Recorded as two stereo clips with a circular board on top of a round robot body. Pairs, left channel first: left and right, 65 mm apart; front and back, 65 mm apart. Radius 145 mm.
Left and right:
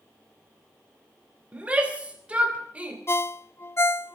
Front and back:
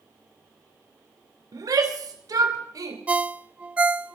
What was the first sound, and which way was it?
A shout, 160° right.